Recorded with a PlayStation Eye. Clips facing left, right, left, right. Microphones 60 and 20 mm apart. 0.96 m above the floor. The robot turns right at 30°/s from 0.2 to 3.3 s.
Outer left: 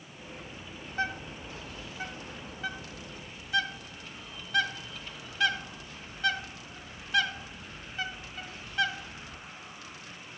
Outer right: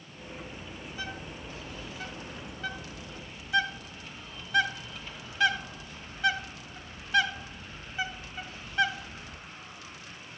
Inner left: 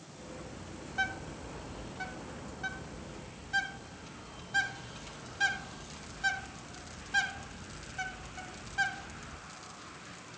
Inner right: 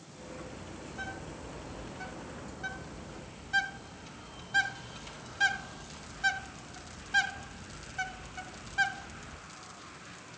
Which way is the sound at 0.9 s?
50° left (ahead or behind).